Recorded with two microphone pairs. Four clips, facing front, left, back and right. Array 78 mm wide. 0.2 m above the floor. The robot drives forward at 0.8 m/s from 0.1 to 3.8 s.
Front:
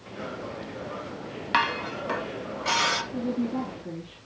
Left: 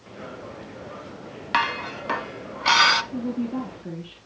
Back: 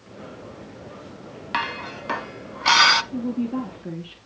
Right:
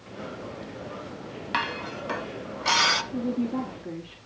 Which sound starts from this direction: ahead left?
Dishes clattering, at 1.5 s.